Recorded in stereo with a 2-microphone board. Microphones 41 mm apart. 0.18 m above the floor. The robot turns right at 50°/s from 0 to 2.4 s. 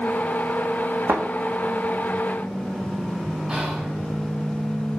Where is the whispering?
15° right (ahead or behind), 1.6 m.